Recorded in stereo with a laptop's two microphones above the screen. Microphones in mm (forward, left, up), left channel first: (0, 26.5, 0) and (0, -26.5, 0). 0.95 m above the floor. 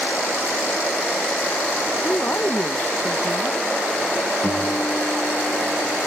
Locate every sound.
2.0 s a woman speaking: 35° left (ahead or behind), 0.7 m
4.4 s a guitar: 40° left (ahead or behind), 4 m